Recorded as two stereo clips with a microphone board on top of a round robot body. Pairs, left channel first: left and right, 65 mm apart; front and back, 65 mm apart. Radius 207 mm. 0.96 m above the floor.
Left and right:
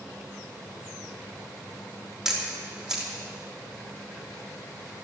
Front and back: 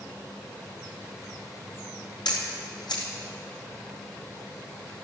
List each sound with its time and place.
2.2 s a camera shutter: 5° right, 3 m